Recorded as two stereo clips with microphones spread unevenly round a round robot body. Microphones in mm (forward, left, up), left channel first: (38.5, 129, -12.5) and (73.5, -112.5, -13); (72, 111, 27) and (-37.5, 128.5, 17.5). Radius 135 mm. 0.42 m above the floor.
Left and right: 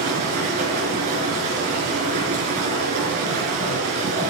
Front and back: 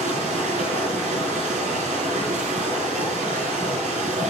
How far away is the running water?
About 5 m.